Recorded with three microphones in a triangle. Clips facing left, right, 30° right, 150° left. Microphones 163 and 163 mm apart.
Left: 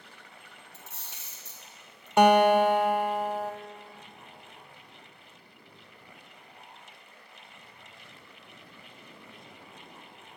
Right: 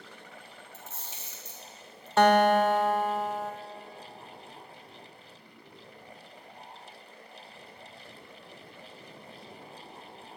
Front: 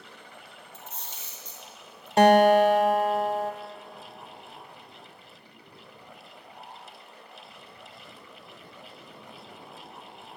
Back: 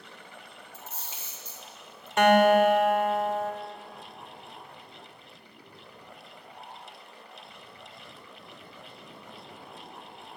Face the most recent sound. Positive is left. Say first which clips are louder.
# left 2 dB, front 2 dB
turn(degrees=15)